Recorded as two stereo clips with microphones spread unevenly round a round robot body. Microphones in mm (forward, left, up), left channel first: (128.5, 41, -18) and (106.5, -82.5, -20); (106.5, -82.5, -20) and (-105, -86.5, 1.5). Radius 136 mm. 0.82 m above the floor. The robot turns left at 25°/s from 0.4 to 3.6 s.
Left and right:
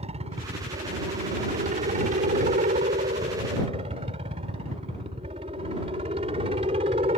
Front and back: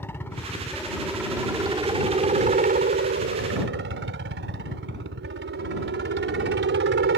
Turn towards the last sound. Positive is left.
turn(degrees=-155)